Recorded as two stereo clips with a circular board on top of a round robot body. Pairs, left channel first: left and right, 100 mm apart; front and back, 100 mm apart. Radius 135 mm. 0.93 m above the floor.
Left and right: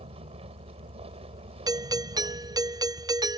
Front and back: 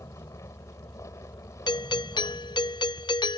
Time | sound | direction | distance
0.0 | a vehicle | 65° right | ?
1.7 | a doorbell | 40° right | ?